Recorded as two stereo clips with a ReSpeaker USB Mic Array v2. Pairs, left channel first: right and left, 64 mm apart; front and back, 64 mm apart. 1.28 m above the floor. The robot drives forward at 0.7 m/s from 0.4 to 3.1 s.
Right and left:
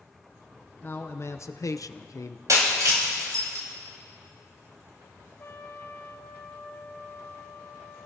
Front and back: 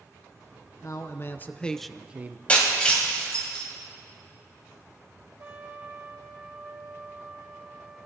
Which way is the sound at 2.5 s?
70° left.